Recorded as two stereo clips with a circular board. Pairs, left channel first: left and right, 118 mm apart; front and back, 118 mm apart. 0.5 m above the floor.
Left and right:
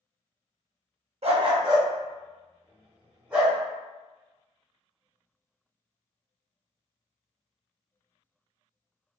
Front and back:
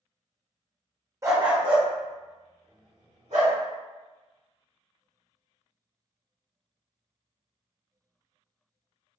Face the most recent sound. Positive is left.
turn(degrees=-170)